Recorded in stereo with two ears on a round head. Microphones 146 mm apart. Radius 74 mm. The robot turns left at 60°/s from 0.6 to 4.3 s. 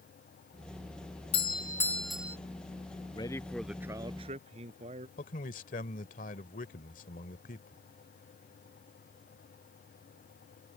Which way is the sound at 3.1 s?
30° left.